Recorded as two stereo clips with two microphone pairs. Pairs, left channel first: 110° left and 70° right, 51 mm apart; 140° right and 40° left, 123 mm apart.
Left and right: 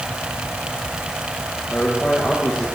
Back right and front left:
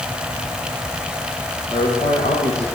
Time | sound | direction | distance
1.7 | a man speaking | 175° right | 8 m